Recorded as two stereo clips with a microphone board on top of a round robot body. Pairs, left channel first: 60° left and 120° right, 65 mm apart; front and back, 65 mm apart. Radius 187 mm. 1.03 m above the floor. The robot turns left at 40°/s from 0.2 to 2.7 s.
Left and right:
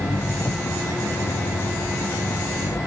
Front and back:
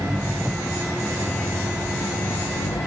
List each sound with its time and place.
0.0 s an engine running: 110° left; by 2.9 s 10° left